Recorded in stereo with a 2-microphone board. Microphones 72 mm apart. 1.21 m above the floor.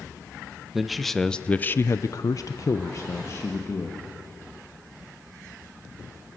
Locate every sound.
0.7 s a man speaking: 5° right (ahead or behind), 1.2 m; by 4.1 s 40° left (ahead or behind), 2 m